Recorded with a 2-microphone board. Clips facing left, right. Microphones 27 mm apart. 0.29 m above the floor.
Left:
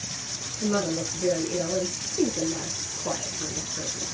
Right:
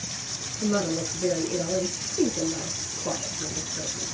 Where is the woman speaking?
5° left (ahead or behind), 6.5 m.